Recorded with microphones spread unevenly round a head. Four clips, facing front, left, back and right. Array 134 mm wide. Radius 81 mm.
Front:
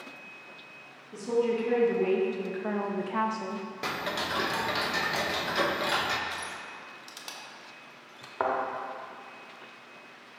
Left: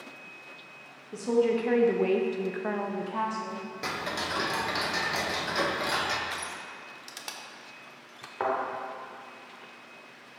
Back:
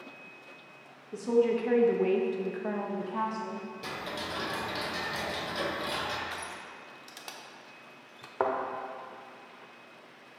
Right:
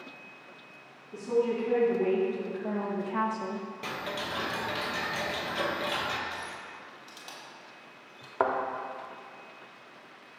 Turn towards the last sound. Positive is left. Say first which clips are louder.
# right 2 dB, even
turn(degrees=-70)